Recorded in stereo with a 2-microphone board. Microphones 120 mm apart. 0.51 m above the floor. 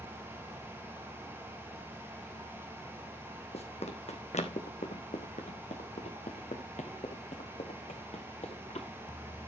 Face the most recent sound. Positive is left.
turn(degrees=60)  # may be behind; listen again after turning